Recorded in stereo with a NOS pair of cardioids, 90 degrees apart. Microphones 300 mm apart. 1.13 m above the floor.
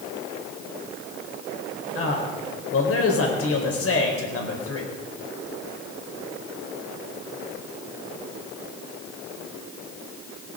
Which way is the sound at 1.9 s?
50° left.